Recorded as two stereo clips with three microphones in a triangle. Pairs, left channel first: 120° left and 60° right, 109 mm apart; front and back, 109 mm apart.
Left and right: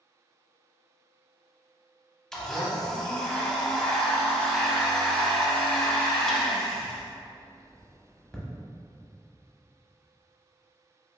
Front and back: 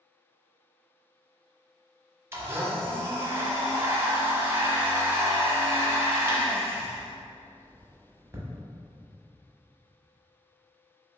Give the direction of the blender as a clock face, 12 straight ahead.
5 o'clock.